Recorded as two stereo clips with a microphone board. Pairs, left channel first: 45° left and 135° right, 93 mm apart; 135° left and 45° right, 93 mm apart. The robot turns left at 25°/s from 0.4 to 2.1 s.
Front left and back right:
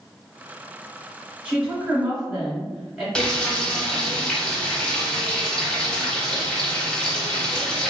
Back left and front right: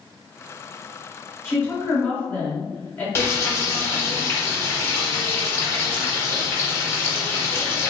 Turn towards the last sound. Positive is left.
turn(degrees=115)